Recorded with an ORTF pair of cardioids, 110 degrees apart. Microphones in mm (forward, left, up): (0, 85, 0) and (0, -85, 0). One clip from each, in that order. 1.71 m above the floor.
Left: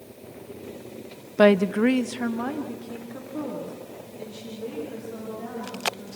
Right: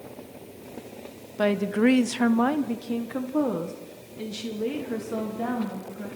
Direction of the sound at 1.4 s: 40° left.